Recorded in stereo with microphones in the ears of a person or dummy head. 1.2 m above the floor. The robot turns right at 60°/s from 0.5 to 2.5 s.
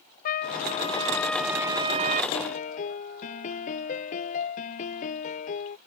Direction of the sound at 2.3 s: 30° left (ahead or behind).